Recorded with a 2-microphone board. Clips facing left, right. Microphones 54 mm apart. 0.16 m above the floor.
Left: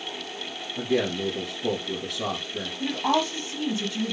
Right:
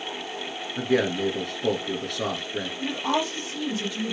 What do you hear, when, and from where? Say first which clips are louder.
0.8 s a man speaking: right 2 dB; 60° right (ahead or behind), 2 m
2.8 s a woman speaking: left 2 dB; 15° left (ahead or behind), 3.5 m